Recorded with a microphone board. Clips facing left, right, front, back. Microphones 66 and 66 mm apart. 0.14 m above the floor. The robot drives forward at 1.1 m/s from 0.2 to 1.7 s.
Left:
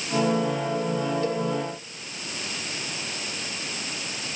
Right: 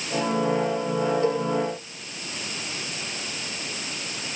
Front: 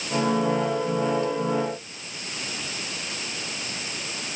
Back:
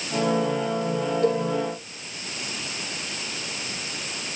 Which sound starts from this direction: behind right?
A cowbell, at 1.2 s.